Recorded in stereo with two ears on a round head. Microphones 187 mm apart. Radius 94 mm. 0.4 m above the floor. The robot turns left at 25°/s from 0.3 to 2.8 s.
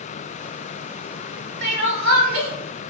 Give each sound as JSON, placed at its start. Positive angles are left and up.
{"t": 1.6, "sound": "crying", "side_deg": -50, "distance_m": 1.0}